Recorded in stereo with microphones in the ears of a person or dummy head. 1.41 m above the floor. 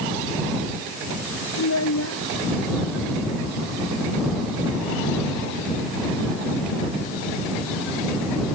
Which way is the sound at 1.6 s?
85° left.